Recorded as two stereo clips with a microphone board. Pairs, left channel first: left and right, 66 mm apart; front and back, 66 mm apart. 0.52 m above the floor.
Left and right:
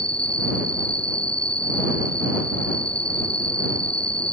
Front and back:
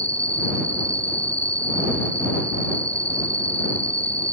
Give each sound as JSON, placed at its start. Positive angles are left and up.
{"t": 0.0, "sound": "an insect", "azimuth_deg": 165}